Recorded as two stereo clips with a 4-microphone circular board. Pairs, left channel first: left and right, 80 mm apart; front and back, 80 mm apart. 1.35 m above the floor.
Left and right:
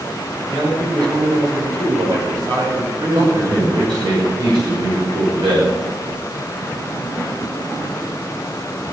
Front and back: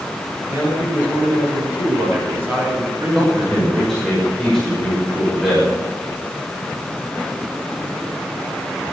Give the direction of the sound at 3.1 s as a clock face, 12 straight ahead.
3 o'clock.